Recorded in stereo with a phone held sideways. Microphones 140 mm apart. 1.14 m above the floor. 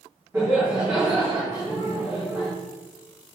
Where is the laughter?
15° right (ahead or behind), 3.5 m.